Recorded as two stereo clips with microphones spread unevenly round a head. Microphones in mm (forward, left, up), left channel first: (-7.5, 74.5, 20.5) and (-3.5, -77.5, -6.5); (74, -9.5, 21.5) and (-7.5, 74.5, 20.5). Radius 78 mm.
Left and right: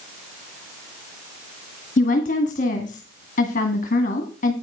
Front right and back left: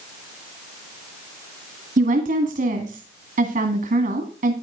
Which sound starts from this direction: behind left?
A woman speaking, at 2.0 s.